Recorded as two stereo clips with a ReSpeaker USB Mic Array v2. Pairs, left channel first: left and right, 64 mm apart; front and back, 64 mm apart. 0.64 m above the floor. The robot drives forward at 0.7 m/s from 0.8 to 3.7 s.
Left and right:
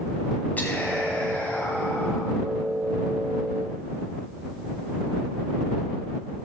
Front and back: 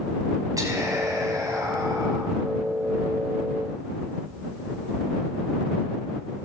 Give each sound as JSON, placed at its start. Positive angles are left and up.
{"t": 0.6, "sound": "whispering", "azimuth_deg": 155, "distance_m": 4.5}